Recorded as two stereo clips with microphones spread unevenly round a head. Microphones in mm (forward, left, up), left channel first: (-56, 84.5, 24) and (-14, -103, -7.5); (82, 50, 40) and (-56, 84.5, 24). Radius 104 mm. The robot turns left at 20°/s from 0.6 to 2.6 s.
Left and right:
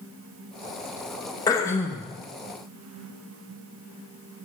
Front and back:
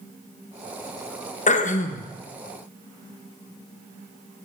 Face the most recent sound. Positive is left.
turn(degrees=5)